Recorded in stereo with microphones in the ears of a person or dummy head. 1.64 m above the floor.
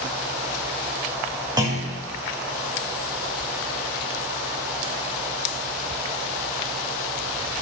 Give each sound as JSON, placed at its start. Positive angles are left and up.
{"t": 1.6, "sound": "a clunk", "side_deg": -20, "distance_m": 0.6}